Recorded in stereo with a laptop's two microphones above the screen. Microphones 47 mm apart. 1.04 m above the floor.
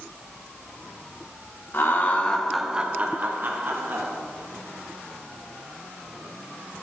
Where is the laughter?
50° left (ahead or behind), 0.7 m; by 4.1 s 55° right (ahead or behind), 1.4 m.